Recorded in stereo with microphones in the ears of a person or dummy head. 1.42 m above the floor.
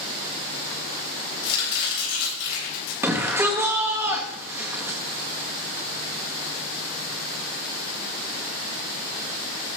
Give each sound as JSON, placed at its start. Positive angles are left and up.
{"t": 1.4, "sound": "chopping", "side_deg": 60, "distance_m": 7.5}
{"t": 3.0, "sound": "a shout", "side_deg": -10, "distance_m": 1.9}